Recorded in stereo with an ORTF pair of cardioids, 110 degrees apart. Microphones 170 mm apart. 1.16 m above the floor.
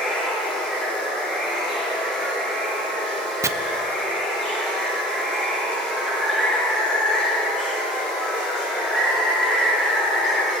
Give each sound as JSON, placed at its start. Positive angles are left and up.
{"t": 0.0, "sound": "running water", "azimuth_deg": 5, "distance_m": 4.0}
{"t": 3.4, "sound": "chopping", "azimuth_deg": -20, "distance_m": 0.5}